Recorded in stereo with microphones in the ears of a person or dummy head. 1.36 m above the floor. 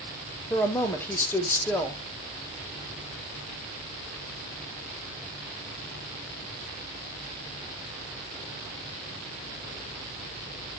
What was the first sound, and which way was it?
A woman speaking, 15° left (ahead or behind).